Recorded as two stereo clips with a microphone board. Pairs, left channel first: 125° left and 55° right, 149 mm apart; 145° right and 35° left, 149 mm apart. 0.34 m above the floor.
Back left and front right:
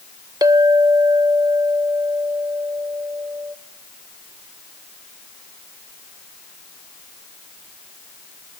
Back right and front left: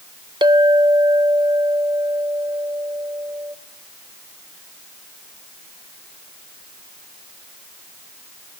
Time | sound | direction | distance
0.4 | a clink | 5° right | 0.8 m